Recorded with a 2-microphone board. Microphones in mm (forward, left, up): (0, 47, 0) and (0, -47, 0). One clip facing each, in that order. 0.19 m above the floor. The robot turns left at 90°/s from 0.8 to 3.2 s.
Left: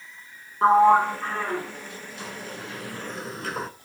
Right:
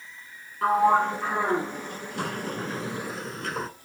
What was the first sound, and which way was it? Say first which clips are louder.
A sliding door: left 4 dB; 30° left (ahead or behind).